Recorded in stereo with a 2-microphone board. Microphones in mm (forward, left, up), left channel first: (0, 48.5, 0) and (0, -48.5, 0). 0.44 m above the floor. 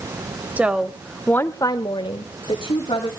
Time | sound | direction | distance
0.6 | a woman speaking | 15° right (ahead or behind) | 1.7 m